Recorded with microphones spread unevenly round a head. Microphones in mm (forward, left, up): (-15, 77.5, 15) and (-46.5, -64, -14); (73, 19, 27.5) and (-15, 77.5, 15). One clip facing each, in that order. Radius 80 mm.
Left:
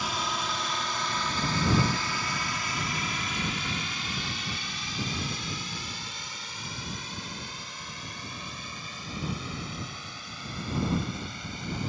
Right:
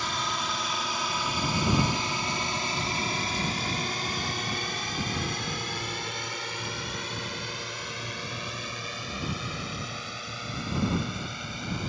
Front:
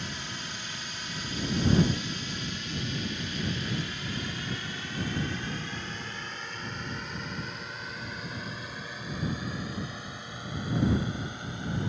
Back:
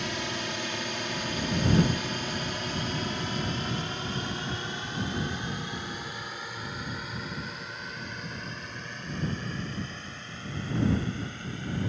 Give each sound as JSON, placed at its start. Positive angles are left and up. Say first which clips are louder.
{"t": 0.0, "sound": "a drone", "louder": "even, back 6 dB", "azimuth_deg": 165}